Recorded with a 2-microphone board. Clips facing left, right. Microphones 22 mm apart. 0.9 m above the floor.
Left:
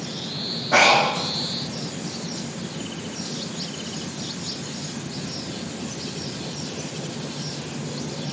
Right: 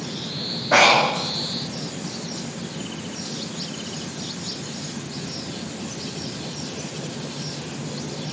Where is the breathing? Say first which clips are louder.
Right 1 dB; 60° right (ahead or behind), 1.0 m.